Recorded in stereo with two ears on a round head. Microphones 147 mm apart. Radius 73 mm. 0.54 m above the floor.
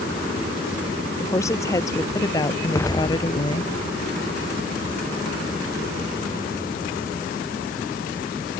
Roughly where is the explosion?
Centre.